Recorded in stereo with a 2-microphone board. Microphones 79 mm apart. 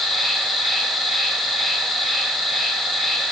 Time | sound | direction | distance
0.0 | an insect | 5° right (ahead or behind) | 4 m